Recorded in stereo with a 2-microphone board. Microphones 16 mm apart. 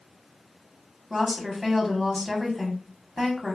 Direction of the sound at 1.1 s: 5° right (ahead or behind).